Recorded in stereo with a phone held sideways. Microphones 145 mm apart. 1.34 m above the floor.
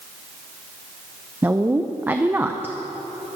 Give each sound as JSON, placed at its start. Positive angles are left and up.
{"t": 1.4, "sound": "a woman speaking", "side_deg": -15, "distance_m": 0.7}